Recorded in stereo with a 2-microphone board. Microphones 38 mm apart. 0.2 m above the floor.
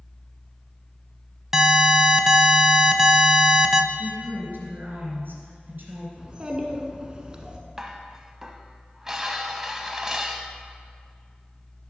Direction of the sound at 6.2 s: 25° right (ahead or behind).